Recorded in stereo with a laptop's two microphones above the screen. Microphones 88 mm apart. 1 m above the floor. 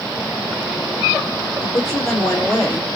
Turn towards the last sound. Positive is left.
turn(degrees=5)  # may be behind; listen again after turning